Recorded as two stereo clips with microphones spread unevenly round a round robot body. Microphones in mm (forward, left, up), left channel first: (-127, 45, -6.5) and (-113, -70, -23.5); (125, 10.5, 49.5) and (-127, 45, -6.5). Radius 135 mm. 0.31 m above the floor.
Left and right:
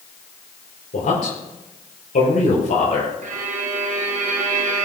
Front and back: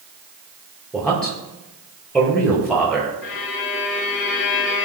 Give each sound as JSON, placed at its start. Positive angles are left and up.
{"t": 0.9, "sound": "a man speaking", "azimuth_deg": 80, "distance_m": 6.0}
{"t": 3.2, "sound": "a violin", "azimuth_deg": -60, "distance_m": 1.7}